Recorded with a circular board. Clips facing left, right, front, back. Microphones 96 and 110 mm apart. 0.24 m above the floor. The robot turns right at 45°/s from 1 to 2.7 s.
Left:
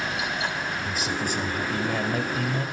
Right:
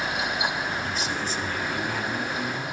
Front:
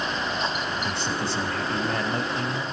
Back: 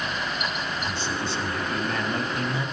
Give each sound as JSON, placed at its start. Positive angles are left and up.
{"t": 0.8, "sound": "a man speaking", "azimuth_deg": 5, "distance_m": 4.5}